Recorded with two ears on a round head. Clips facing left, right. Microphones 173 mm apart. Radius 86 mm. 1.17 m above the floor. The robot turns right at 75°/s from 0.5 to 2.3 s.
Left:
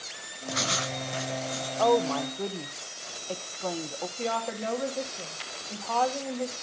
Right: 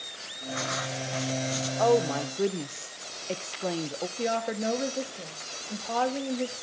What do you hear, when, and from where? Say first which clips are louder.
0.5 s writing: left 1 dB; 120° left, 0.6 m; by 1.7 s 150° right, 0.6 m
1.8 s a woman speaking: even; centre (ahead or behind), 0.5 m; by 4.1 s 25° right (ahead or behind), 0.5 m
4.2 s a woman speaking: right 3 dB; 20° right (ahead or behind), 1.7 m